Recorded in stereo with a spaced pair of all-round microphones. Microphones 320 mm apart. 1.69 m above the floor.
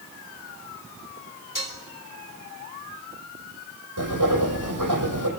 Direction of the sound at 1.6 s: 75° left (ahead or behind).